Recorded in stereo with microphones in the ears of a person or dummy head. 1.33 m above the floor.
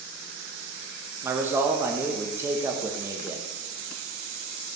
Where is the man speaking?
15° right (ahead or behind), 1.2 m.